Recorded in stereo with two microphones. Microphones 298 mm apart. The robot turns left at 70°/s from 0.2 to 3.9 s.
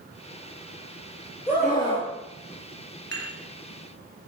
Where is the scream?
155° left, 4.5 m; by 2.1 s 110° left, 4.5 m.